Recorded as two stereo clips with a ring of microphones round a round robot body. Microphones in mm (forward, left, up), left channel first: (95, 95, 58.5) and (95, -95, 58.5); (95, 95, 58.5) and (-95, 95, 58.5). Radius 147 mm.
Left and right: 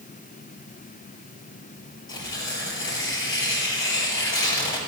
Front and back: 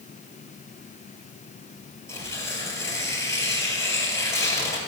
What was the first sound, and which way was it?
Tearing paper, 75° left.